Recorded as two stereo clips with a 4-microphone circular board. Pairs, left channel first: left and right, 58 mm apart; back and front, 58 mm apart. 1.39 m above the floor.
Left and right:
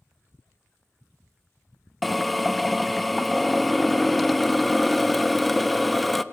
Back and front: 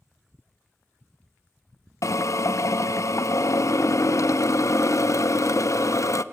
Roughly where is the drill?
Behind.